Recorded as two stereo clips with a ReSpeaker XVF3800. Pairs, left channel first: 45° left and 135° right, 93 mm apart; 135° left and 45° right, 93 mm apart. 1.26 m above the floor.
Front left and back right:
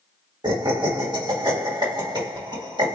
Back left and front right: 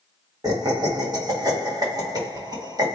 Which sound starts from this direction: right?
Laughter, at 0.4 s.